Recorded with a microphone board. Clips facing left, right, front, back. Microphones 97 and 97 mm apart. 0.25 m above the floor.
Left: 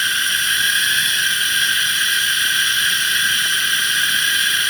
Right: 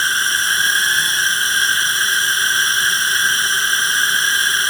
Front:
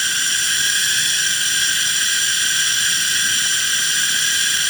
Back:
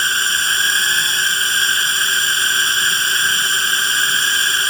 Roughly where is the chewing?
I don't hear chewing.